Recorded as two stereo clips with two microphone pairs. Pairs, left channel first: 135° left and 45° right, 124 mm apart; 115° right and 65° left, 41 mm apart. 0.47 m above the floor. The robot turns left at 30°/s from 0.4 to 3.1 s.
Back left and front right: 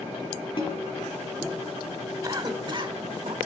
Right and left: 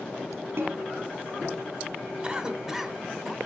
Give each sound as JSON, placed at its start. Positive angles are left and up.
{"t": 0.6, "sound": "a snare drum", "azimuth_deg": 90, "distance_m": 3.5}
{"t": 2.2, "sound": "a cough", "azimuth_deg": 5, "distance_m": 1.2}